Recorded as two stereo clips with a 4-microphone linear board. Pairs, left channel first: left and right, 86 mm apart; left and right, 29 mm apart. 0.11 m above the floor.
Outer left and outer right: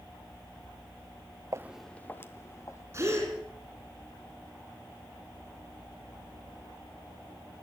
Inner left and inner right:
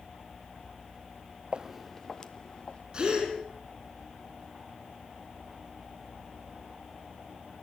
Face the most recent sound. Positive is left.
turn(degrees=-30)  # may be behind; listen again after turning